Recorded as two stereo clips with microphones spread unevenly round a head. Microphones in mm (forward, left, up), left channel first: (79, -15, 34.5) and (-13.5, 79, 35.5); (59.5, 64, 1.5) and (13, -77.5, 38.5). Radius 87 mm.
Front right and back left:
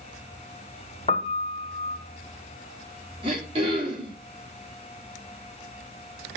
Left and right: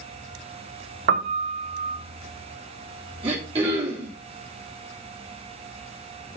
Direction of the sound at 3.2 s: 165° right.